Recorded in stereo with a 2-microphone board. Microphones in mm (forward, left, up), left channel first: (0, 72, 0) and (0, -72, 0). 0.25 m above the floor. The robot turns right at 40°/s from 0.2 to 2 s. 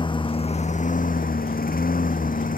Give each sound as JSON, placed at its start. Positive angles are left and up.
{"t": 0.0, "sound": "a lawn mower", "azimuth_deg": 35}